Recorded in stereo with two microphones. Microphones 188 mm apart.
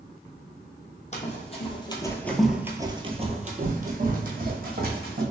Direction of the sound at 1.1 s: 40° left (ahead or behind).